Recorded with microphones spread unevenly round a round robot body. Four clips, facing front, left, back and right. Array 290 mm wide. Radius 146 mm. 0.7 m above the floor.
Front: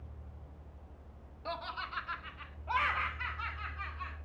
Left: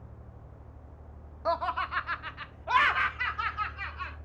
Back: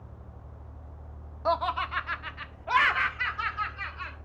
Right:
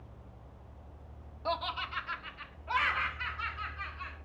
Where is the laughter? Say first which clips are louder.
Left 6 dB, back 13 dB; 170° left, 0.9 m; by 4.2 s 140° left, 3 m.